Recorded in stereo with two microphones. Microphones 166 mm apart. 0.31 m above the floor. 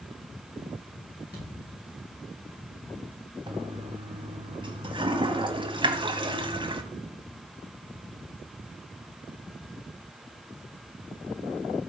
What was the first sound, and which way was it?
A thud, 85° left.